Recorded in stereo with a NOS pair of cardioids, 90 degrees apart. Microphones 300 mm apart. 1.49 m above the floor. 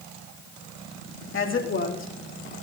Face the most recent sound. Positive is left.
turn(degrees=40)